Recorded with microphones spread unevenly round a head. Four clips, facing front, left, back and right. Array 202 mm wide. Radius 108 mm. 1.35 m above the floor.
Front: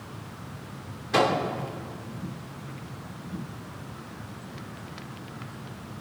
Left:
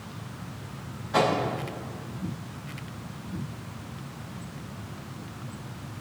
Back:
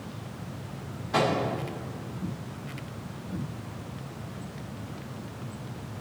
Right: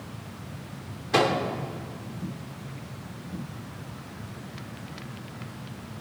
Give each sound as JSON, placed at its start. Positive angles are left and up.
{"t": 1.1, "sound": "a microwave", "azimuth_deg": -75, "distance_m": 3.0}